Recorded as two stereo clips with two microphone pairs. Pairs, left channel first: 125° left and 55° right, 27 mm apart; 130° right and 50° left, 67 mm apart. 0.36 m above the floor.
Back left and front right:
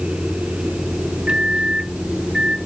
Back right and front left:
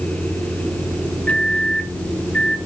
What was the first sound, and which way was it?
A microwave, 75° right.